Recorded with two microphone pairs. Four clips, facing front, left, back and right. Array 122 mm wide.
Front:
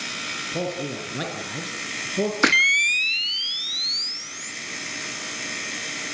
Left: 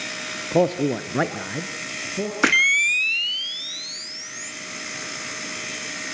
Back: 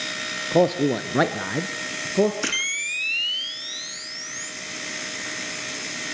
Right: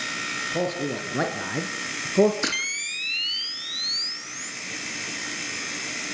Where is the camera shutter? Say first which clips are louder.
Left 10 dB, front 9 dB; 45° left, 1.0 m.